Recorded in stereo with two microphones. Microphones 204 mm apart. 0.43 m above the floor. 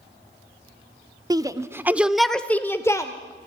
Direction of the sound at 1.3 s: 20° right (ahead or behind).